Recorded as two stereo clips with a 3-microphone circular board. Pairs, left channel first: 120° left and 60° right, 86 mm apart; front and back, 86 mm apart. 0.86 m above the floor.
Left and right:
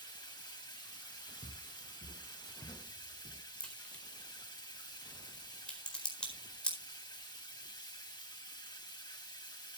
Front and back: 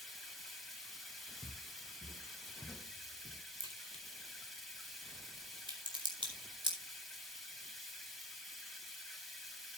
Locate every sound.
0.0 s running water: 90° left, 3.5 m
1.4 s footsteps: 105° left, 2.5 m; by 3.4 s 45° left, 2.5 m
3.6 s a crack: 160° right, 4 m